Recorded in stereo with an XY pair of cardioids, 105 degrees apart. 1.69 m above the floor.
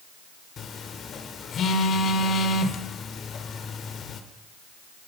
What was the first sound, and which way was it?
A phone buzzing, 50° left.